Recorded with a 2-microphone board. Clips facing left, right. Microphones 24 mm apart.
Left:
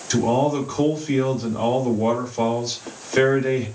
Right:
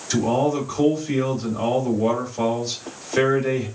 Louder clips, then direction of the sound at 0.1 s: Left 1 dB; 10° left (ahead or behind).